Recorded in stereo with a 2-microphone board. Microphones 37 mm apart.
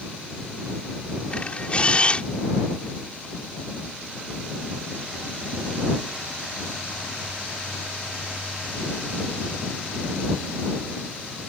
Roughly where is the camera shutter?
Left.